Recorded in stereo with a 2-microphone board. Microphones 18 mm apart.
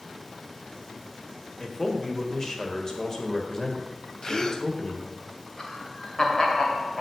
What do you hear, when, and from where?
1.6 s a man speaking: 25° left (ahead or behind), 1.6 m
4.2 s a gasp: 25° left (ahead or behind), 0.5 m
5.6 s laughter: 30° left (ahead or behind), 2.0 m